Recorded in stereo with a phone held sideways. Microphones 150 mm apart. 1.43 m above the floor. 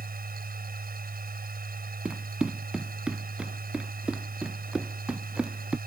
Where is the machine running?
85° right.